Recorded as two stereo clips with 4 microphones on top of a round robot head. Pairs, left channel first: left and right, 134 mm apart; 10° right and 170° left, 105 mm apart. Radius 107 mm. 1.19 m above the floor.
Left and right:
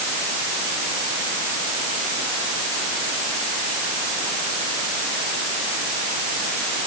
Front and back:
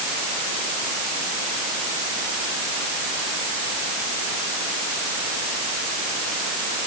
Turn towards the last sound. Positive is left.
No sound to turn to.